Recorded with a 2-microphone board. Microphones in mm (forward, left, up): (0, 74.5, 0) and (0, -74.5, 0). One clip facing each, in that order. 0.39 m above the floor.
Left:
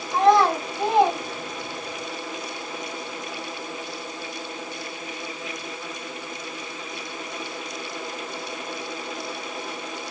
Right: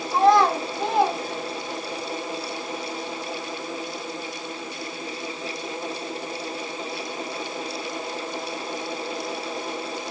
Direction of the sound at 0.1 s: 10° right (ahead or behind).